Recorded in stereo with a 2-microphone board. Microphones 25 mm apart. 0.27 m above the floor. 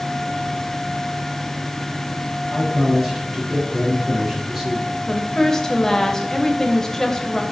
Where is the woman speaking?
20° left (ahead or behind), 0.9 m.